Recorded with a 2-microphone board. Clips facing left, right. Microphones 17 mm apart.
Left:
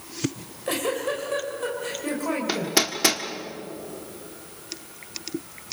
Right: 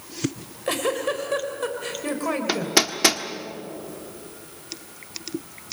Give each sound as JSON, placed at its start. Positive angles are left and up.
{"t": 0.3, "sound": "a giggle", "side_deg": -15, "distance_m": 2.5}
{"t": 2.5, "sound": "hammering", "side_deg": -10, "distance_m": 1.4}